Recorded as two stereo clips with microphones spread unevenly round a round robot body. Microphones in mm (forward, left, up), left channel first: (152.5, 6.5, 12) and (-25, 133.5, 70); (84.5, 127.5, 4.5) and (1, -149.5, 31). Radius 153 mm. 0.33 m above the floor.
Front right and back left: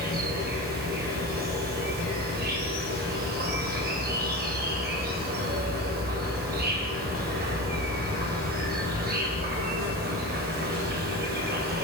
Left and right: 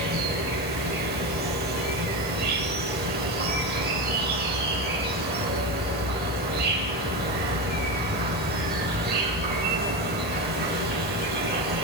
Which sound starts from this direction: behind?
An insect, at 0.0 s.